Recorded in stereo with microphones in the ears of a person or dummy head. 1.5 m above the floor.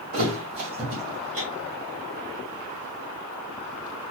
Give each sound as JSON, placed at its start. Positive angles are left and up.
{"t": 0.1, "sound": "a thud", "side_deg": -40, "distance_m": 2.0}